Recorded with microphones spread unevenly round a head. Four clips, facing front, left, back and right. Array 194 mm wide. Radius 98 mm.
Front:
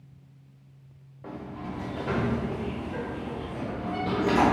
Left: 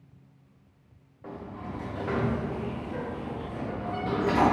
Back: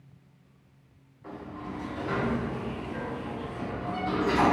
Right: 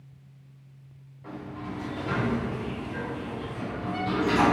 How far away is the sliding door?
About 0.9 m.